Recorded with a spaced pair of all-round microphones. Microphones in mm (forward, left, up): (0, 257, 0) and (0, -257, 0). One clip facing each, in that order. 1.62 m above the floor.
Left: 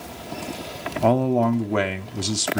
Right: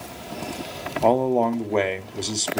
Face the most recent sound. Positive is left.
turn(degrees=35)  # may be behind; listen again after turning